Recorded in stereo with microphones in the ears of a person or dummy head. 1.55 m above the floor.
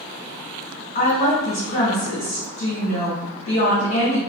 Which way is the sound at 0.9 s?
40° left (ahead or behind).